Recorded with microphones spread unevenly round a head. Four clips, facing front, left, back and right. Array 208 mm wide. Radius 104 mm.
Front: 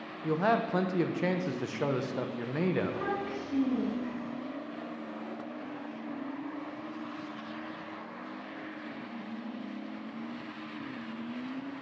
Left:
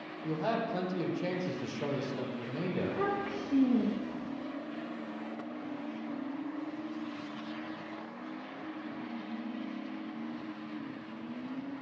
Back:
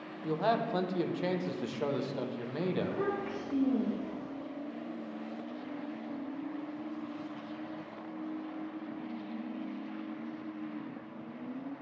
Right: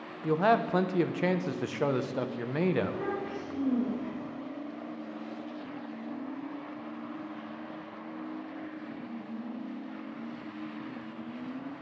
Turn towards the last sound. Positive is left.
turn(degrees=105)